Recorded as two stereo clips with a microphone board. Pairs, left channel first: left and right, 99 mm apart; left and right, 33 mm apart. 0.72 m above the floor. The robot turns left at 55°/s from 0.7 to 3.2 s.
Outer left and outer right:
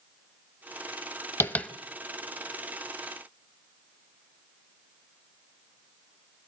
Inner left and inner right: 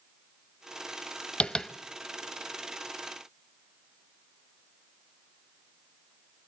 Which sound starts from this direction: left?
Tapping, at 1.4 s.